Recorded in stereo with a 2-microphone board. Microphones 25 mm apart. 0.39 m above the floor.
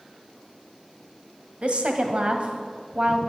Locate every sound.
1.6 s a woman speaking: 50° right (ahead or behind), 1.8 m